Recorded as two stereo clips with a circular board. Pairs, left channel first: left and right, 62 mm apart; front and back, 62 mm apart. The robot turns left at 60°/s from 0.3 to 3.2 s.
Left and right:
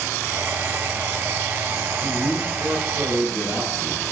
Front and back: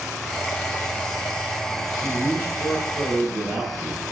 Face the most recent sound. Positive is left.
turn(degrees=-95)